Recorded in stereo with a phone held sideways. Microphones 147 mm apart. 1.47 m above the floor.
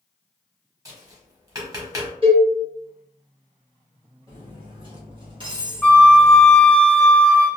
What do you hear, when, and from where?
0.8 s tapping: 25° right (ahead or behind), 1.1 m
2.2 s a cowbell: 40° right (ahead or behind), 1.5 m
4.3 s cutlery clinking: 35° right (ahead or behind), 1.2 m
5.8 s a flute: 10° left (ahead or behind), 0.7 m